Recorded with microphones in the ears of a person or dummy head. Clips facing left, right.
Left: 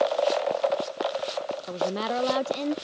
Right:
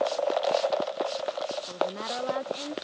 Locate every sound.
1.7 s a woman speaking: 55° left (ahead or behind)